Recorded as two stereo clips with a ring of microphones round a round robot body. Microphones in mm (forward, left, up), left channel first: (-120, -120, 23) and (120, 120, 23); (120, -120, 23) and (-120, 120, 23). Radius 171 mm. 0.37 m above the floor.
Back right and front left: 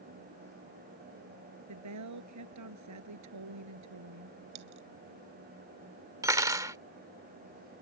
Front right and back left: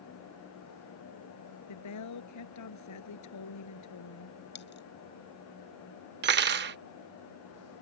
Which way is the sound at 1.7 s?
Straight ahead.